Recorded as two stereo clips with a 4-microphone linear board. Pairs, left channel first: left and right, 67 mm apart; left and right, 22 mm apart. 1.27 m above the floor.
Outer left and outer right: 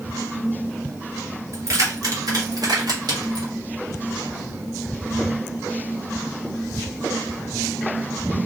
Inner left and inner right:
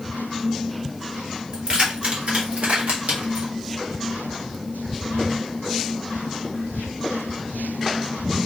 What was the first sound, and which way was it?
Keys jangling, 55° right (ahead or behind).